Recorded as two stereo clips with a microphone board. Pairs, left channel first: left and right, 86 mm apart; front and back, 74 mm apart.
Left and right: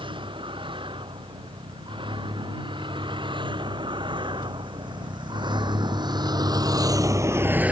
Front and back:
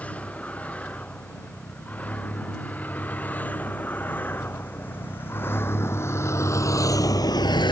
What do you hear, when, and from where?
0.0 s a vehicle: 75° right; by 7.7 s 15° right